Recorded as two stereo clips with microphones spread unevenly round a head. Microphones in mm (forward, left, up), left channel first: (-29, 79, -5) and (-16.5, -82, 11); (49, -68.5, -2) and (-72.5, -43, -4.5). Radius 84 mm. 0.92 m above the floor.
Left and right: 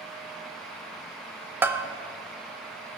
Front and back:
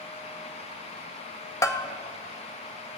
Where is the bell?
10° right, 0.7 m.